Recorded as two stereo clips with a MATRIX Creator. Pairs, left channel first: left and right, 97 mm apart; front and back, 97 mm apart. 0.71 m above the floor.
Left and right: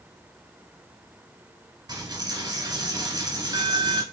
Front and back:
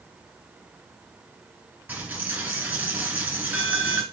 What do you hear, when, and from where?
1.9 s a dropped coin: 110° right, 0.9 m